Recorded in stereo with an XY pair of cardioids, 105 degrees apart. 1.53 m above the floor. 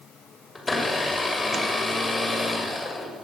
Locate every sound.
0.6 s a blender: 20° left, 6.5 m